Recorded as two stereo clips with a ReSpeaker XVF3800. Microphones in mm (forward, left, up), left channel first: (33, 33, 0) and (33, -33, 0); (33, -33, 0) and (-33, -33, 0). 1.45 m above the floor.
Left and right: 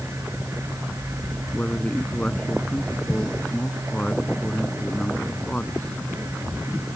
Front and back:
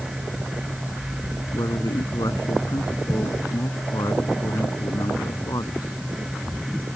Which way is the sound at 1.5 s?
20° left.